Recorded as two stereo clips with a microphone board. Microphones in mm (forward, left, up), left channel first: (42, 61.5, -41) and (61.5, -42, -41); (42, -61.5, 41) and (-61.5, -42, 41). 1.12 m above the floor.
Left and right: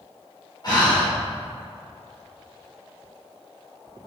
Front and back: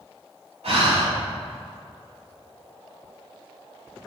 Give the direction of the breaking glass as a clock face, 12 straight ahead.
No breaking glass in this recording.